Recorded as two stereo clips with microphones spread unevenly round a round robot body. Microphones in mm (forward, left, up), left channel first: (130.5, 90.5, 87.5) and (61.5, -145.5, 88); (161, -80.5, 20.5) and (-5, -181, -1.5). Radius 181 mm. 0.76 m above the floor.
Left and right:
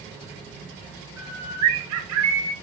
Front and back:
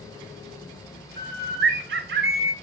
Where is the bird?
145° right, 1.4 m.